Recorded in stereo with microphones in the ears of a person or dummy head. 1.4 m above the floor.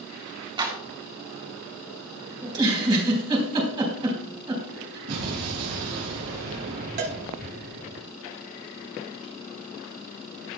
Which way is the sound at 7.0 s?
35° right (ahead or behind).